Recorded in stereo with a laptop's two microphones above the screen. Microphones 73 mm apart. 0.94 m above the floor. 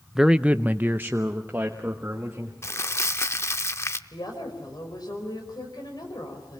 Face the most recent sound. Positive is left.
turn(degrees=70)  # may be behind; listen again after turning